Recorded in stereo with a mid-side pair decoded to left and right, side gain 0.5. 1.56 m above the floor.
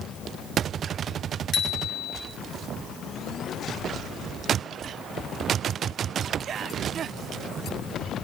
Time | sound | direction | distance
1.5 | a bicycle bell | 50° left | 6 m